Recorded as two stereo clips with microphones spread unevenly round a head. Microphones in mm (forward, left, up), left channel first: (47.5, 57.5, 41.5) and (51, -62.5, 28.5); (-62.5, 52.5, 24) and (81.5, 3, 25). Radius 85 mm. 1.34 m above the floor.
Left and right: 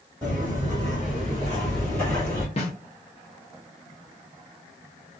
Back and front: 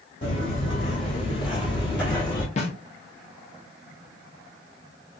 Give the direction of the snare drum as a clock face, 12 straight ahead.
8 o'clock.